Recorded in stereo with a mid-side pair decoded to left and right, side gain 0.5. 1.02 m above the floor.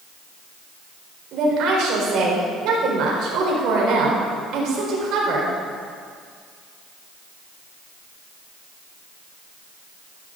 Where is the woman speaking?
70° right, 4 m.